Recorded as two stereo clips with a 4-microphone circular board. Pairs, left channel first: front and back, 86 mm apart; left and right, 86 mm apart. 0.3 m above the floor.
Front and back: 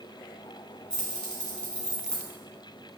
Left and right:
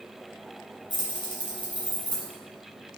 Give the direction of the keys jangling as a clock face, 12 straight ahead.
9 o'clock.